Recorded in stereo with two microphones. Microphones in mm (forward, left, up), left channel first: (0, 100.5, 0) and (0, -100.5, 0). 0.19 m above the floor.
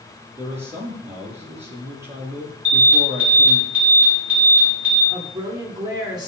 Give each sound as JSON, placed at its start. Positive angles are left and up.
{"t": 0.4, "sound": "a man speaking", "side_deg": -10, "distance_m": 3.5}
{"t": 2.6, "sound": "an alarm", "side_deg": -10, "distance_m": 6.0}
{"t": 5.1, "sound": "a woman speaking", "side_deg": -20, "distance_m": 3.0}